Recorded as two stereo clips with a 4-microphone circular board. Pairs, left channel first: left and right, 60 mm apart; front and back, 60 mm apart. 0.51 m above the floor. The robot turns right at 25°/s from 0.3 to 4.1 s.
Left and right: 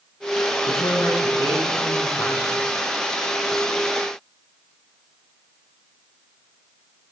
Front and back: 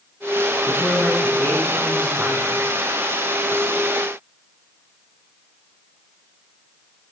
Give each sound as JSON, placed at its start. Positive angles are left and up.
{"t": 0.7, "sound": "a woman speaking", "azimuth_deg": 80, "distance_m": 3.5}